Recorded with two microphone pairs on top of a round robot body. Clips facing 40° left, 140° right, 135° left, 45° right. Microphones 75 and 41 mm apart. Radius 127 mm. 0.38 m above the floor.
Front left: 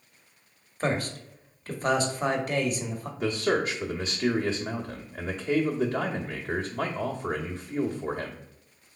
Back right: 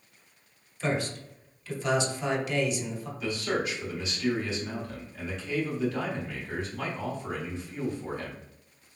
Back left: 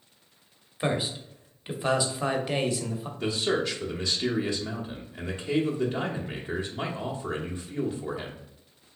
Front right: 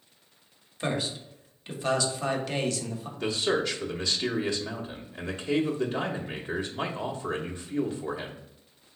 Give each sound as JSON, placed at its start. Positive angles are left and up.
{"t": 0.8, "sound": "a man speaking", "azimuth_deg": 60, "distance_m": 1.1}
{"t": 3.2, "sound": "a man speaking", "azimuth_deg": 30, "distance_m": 1.1}